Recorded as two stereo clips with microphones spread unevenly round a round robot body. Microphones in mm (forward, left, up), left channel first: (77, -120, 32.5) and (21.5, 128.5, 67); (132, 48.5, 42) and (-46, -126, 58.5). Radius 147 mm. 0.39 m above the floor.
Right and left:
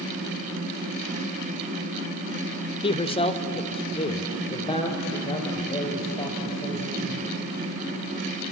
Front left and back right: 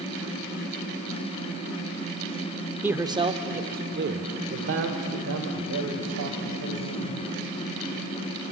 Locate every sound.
2.8 s a man speaking: 50° right, 1.0 m; by 7.3 s 150° right, 2.5 m